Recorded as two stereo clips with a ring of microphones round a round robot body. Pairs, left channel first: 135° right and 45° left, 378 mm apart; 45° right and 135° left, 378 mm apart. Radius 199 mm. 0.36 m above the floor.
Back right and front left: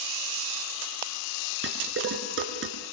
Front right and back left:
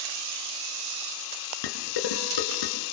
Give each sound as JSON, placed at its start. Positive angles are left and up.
{"t": 1.6, "sound": "dishes clattering", "azimuth_deg": -15, "distance_m": 4.0}